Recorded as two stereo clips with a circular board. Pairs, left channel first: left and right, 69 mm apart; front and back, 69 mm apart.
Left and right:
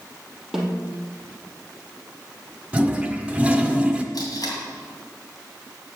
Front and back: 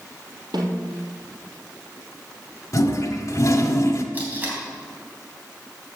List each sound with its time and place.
0.5 s a snare drum: 175° right, 3 m
2.7 s a toilet flushing: 20° right, 1.3 m
4.1 s tape being pulled: 115° left, 3 m